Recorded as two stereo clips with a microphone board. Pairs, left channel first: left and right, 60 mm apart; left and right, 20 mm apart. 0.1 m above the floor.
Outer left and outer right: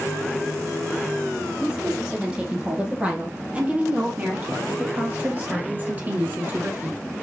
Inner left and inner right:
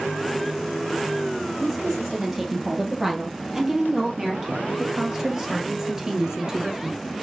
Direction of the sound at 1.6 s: 15° right (ahead or behind).